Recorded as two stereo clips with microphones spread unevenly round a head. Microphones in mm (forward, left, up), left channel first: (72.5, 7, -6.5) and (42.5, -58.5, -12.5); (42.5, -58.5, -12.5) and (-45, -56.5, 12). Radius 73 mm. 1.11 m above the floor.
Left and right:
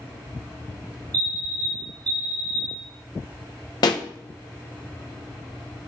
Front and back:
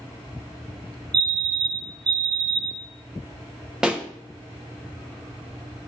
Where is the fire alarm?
135° right, 1.8 m.